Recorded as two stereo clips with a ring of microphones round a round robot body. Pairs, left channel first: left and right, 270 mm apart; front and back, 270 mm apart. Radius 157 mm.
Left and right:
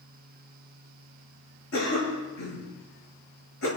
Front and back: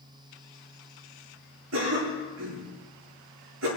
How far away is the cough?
About 7.5 m.